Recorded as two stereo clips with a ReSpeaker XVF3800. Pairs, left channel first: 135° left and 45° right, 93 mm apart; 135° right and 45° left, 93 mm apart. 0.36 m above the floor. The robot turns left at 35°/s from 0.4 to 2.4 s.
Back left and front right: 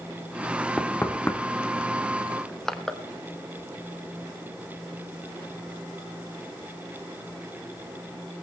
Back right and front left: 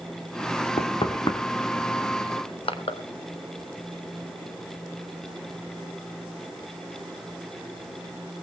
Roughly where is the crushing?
Behind right.